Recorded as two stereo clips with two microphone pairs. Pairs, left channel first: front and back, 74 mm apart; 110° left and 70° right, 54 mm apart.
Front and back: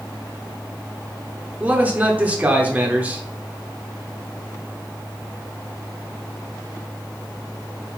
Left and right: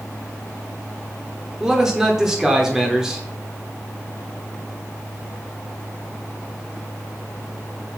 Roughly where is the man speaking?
Behind right.